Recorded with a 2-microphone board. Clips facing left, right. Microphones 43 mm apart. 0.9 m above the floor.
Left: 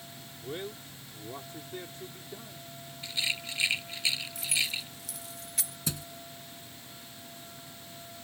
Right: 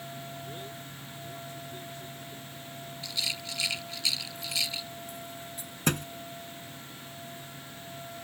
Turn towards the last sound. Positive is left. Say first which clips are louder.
# right 10 dB
turn(degrees=-50)  # may be behind; listen again after turning